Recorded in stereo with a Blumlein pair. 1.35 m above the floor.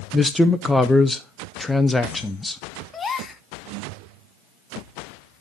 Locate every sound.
0.1 s a man speaking: 5° left, 0.5 m
2.9 s a gasp: 20° left, 0.8 m